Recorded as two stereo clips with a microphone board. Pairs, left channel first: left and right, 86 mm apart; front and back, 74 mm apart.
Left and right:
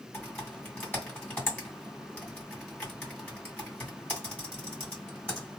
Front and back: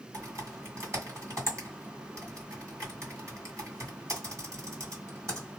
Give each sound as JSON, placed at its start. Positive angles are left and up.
{"t": 0.1, "sound": "typing on a keyboard", "azimuth_deg": 155, "distance_m": 2.0}